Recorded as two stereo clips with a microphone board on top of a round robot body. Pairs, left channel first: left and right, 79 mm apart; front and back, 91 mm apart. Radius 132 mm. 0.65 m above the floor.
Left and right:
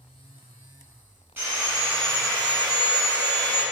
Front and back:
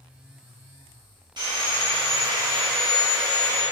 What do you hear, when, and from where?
1.4 s sawing: 150° right, 1.1 m